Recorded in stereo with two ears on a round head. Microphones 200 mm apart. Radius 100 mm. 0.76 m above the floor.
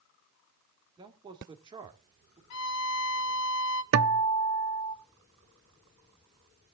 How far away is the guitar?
About 0.8 m.